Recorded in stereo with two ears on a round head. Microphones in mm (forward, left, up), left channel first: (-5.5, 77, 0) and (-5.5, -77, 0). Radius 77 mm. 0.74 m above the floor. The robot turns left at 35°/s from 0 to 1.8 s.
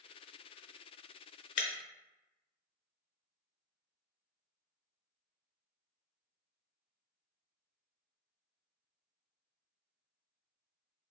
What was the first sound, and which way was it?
Breaking glass, 50° left (ahead or behind).